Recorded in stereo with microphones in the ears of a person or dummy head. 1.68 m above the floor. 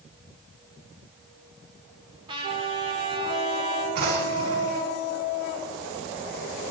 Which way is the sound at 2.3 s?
30° right (ahead or behind).